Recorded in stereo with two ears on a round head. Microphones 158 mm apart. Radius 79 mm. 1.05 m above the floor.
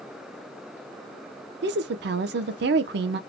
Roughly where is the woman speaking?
Right.